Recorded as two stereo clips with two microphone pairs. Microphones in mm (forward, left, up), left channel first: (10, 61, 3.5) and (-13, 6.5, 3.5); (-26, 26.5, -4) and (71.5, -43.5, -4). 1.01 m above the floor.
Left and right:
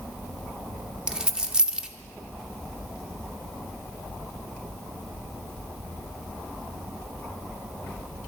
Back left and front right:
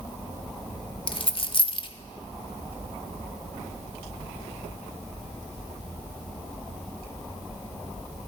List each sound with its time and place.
1.1 s a dropped coin: 175° left, 0.8 m